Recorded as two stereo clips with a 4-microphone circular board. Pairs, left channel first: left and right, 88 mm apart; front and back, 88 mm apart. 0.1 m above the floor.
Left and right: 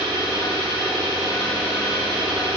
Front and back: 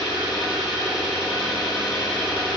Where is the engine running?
100° right, 1.1 m.